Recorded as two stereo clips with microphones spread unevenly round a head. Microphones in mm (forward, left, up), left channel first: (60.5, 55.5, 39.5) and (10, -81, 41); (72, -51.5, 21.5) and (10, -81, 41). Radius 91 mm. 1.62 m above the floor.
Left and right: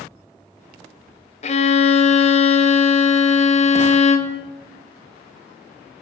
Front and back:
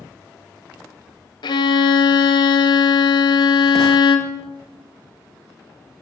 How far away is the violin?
About 0.7 m.